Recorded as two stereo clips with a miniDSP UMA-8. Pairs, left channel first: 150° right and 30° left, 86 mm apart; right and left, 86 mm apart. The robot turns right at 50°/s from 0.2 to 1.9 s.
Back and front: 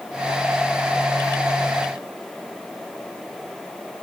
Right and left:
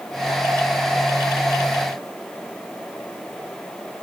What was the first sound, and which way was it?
Only background noise.